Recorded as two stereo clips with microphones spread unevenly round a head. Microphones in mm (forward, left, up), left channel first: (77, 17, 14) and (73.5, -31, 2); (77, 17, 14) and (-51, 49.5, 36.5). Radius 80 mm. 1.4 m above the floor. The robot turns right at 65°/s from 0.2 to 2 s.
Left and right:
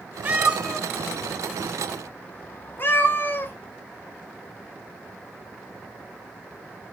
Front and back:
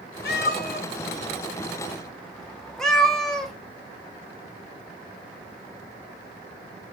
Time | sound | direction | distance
0.2 | a cat meowing | 35° right | 1.2 m